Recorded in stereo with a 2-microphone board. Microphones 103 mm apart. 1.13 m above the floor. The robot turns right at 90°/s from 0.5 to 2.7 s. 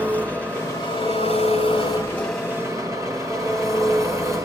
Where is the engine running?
15° left, 4.5 m; by 4.5 s 150° right, 4.5 m.